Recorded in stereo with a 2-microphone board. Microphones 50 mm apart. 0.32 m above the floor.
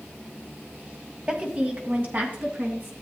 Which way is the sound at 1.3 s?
25° right (ahead or behind).